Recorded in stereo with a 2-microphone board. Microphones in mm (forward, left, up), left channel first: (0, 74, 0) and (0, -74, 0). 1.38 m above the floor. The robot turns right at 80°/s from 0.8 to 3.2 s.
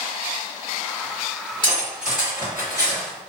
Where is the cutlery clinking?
30° left (ahead or behind), 1.3 m; by 3.2 s 20° left (ahead or behind), 1.3 m.